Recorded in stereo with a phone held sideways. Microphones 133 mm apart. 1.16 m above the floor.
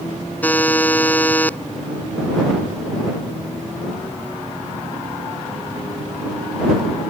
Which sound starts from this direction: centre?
A buzzer, at 0.4 s.